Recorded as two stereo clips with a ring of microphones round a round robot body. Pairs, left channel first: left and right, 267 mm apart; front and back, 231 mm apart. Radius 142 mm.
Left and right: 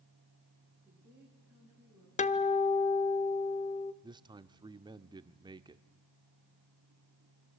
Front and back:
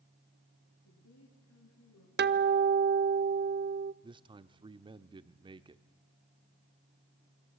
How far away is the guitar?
About 0.8 m.